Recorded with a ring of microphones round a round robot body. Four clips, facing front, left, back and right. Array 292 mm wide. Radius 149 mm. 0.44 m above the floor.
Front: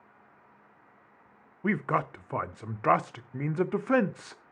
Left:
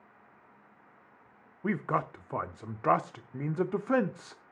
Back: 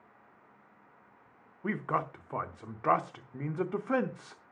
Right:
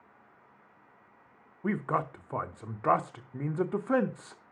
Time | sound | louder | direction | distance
1.6 | a man speaking | even, front 4 dB | 10° left | 0.7 m